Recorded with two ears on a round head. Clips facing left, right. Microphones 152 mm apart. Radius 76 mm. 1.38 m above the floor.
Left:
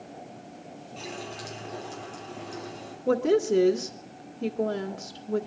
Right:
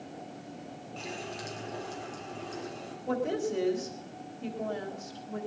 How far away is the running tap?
About 4.5 m.